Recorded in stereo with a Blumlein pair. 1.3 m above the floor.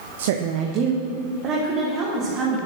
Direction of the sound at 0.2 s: 60° right.